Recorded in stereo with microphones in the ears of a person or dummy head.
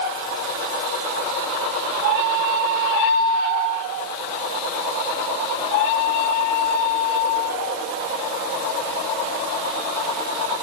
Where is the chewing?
No chewing in this recording.